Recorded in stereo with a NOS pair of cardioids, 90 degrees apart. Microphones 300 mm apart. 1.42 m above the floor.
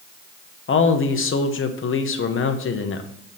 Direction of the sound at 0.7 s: 45° left.